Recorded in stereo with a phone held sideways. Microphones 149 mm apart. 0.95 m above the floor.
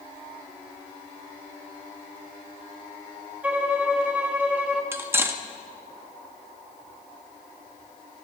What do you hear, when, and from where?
3.4 s a violin: 10° right (ahead or behind), 1.0 m
4.9 s cutlery clinking: 15° right (ahead or behind), 0.6 m